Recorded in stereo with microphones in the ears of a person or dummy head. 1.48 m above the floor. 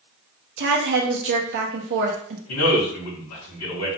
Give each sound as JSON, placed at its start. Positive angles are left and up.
{"t": 0.6, "sound": "a woman speaking", "side_deg": -65, "distance_m": 1.1}
{"t": 2.5, "sound": "a man speaking", "side_deg": 80, "distance_m": 2.5}